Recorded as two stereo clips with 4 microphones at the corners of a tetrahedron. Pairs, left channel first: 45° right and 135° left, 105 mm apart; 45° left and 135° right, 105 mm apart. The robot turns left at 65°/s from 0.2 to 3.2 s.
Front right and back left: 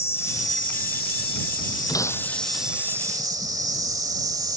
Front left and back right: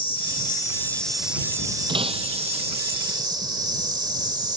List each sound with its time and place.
0.0 s an insect: 20° left; by 4.6 s 175° right
1.9 s breaking glass: 95° right; by 2.6 s 145° right